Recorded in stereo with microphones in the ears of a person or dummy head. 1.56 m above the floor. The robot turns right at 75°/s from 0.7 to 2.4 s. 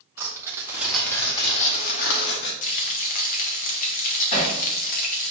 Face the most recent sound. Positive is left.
turn(degrees=35)  # may be behind; listen again after turning